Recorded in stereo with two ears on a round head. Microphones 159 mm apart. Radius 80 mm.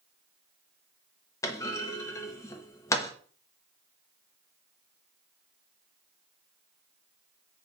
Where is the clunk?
15° left (ahead or behind), 0.6 m.